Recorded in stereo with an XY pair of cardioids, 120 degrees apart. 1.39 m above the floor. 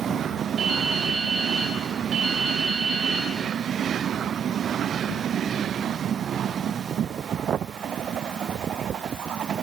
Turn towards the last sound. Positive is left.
turn(degrees=-60)